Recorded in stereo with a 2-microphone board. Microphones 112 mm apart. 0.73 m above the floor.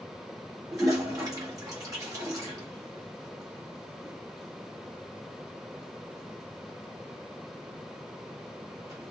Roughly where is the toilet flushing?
Right.